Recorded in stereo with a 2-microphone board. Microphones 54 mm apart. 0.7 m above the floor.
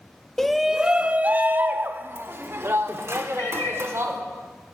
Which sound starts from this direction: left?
A cat meowing, at 3.4 s.